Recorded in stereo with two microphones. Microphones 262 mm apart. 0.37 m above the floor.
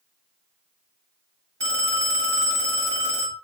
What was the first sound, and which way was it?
A phone ringing, 65° right (ahead or behind).